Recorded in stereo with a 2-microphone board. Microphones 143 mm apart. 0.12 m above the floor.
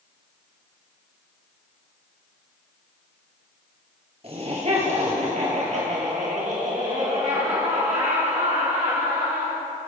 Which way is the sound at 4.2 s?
45° right (ahead or behind).